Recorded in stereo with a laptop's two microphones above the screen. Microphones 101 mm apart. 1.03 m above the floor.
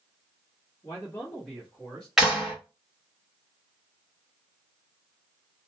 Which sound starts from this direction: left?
A man speaking, at 0.8 s.